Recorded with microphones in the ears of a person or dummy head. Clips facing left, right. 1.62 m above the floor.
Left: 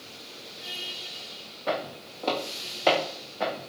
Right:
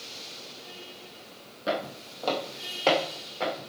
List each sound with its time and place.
1.7 s footsteps: 25° right (ahead or behind), 3 m; by 3.6 s 5° left (ahead or behind), 4 m